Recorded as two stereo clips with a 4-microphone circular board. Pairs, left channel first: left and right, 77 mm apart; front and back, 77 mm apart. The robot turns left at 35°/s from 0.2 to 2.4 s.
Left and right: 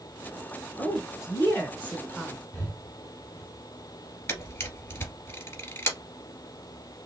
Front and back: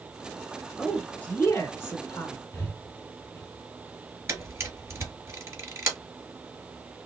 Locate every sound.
0.8 s a woman speaking: 75° left, 1.3 m; by 2.4 s 20° left, 1.3 m
2.5 s breathing: 45° left, 2 m
4.3 s a camera shutter: 135° left, 1.9 m